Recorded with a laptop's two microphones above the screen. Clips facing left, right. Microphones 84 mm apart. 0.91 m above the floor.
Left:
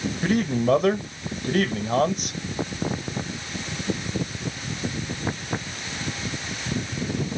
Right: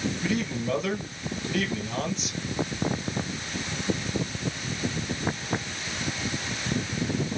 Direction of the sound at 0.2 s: 50° left (ahead or behind).